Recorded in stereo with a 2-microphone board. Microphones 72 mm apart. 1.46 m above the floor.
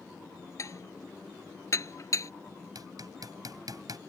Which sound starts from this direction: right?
Hammering, at 2.8 s.